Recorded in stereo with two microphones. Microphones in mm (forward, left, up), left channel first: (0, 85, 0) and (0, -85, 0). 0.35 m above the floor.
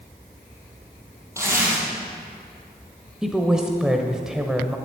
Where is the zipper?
15° right (ahead or behind), 4.5 m.